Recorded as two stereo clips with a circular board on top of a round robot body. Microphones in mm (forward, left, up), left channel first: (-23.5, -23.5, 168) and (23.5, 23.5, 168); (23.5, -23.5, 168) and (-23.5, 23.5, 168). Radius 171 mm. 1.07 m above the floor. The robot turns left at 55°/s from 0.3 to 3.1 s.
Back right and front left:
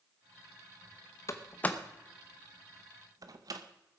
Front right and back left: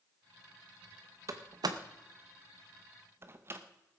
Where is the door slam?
Straight behind, 0.8 m; by 3.6 s 80° left, 0.8 m.